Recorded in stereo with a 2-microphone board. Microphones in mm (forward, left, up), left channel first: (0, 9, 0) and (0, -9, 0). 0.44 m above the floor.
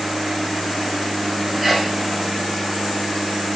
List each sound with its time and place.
1.6 s a sneeze: 10° right (ahead or behind), 3.5 m